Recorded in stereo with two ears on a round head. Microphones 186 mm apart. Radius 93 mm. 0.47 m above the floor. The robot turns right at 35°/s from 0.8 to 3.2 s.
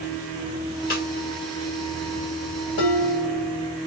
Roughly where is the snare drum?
Left.